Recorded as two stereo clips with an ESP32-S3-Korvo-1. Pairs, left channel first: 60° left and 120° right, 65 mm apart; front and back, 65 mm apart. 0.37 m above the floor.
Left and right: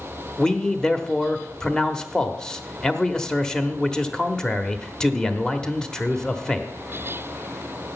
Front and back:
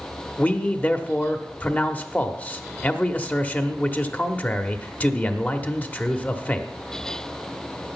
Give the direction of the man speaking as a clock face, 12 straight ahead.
12 o'clock.